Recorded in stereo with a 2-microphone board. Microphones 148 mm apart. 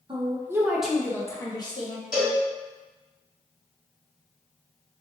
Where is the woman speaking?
35° right (ahead or behind), 0.7 m; by 2.0 s 35° left (ahead or behind), 1.0 m.